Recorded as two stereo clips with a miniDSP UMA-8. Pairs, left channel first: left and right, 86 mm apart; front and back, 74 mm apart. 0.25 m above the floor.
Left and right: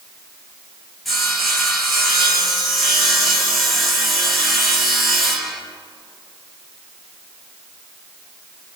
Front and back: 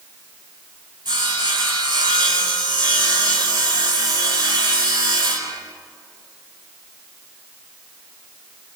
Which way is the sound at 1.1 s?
Straight behind.